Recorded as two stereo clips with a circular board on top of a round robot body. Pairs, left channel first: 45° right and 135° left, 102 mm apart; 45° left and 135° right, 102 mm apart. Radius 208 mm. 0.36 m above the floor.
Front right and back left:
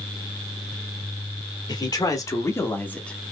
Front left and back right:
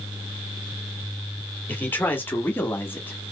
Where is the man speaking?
20° right, 1.4 m; by 3.3 s 35° left, 1.1 m.